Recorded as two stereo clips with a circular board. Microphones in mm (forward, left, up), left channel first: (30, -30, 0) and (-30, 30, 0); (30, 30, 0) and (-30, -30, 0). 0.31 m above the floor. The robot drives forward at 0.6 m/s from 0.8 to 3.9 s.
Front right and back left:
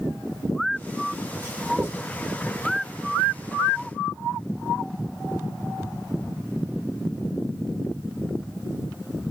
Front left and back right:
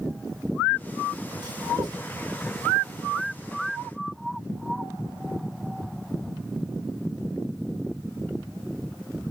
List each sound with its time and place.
1.4 s writing: 160° right, 5 m